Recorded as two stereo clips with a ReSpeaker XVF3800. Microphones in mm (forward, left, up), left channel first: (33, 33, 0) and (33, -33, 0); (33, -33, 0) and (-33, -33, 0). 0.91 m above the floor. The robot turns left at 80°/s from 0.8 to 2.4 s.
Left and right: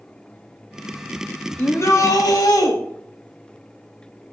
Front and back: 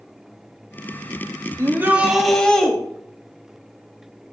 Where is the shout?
140° left, 1.5 m; by 2.7 s 75° left, 1.5 m.